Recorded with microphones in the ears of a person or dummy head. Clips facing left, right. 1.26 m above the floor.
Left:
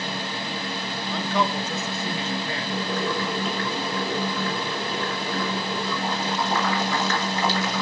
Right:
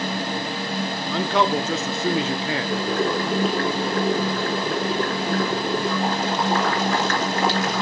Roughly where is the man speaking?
Right.